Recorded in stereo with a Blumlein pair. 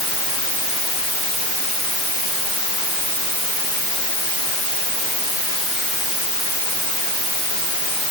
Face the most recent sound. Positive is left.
No sound to turn to.